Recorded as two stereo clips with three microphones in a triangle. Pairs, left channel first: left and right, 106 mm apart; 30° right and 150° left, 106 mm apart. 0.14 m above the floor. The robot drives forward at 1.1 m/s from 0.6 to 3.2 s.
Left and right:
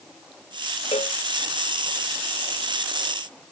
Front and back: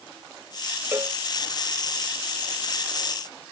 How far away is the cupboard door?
I don't hear a cupboard door.